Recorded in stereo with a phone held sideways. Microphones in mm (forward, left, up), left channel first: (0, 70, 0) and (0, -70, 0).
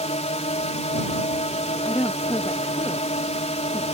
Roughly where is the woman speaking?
Left.